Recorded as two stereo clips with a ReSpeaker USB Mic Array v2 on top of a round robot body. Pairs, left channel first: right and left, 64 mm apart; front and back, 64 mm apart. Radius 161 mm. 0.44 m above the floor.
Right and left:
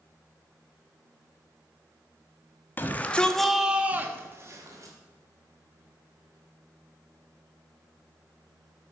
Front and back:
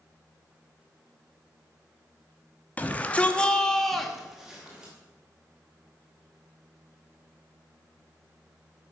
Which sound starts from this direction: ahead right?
A shout, at 2.8 s.